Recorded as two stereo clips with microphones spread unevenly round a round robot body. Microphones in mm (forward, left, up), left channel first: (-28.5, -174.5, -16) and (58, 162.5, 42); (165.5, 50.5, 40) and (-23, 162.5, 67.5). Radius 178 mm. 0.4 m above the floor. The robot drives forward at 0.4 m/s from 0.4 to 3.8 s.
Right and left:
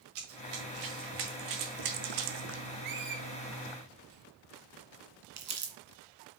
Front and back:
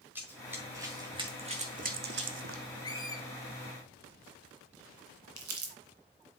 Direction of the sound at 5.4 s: 140° left.